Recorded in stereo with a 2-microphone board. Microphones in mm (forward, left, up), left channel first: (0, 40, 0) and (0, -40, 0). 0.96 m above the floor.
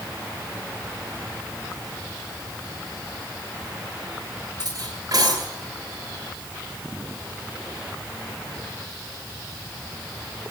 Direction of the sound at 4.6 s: 50° right (ahead or behind).